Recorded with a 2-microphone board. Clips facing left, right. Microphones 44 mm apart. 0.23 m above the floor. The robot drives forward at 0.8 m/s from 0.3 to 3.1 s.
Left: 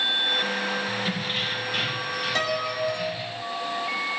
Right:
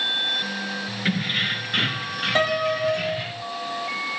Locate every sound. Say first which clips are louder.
1.1 s keys jangling: right 4 dB; 45° right (ahead or behind), 2.5 m; by 3.4 s 65° right (ahead or behind), 1.8 m
2.4 s a piano: right 6 dB; 25° right (ahead or behind), 1.0 m; by 3.2 s 30° right (ahead or behind), 0.7 m